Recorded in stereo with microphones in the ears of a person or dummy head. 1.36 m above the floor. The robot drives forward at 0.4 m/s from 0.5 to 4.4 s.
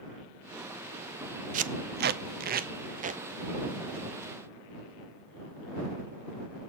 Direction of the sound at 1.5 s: 40° right (ahead or behind).